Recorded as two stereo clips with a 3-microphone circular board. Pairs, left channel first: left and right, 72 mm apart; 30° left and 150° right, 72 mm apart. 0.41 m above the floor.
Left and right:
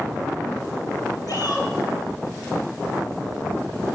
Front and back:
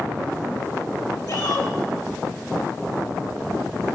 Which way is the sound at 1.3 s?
60° left.